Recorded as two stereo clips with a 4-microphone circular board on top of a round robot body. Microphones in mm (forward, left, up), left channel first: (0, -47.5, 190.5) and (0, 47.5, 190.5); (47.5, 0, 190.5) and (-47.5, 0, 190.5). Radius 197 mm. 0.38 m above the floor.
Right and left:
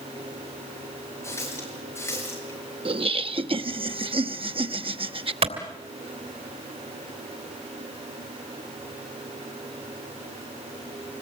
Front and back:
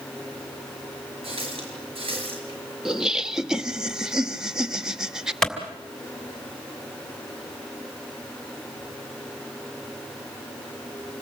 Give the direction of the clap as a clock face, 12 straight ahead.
9 o'clock.